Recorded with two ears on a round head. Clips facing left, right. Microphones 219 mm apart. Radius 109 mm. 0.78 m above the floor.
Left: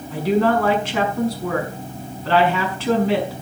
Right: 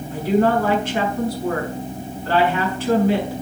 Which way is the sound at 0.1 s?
55° left (ahead or behind).